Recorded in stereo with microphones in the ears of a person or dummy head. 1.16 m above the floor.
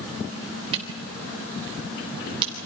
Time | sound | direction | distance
0.7 | a camera shutter | 25° right (ahead or behind) | 3.5 m